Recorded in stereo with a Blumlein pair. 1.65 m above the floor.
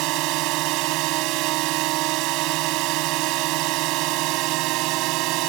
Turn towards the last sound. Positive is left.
turn(degrees=-40)